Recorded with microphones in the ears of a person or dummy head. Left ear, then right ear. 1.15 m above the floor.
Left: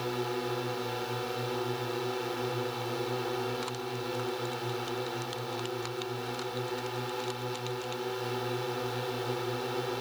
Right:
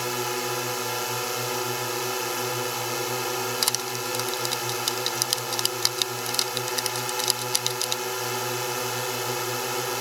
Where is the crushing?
65° right (ahead or behind).